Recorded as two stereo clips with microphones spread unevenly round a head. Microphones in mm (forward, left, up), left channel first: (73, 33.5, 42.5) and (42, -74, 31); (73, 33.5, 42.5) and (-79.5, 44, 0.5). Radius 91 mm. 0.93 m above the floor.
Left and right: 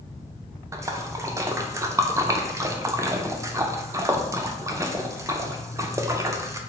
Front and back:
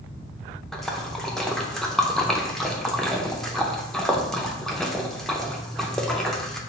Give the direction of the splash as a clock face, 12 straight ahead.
4 o'clock.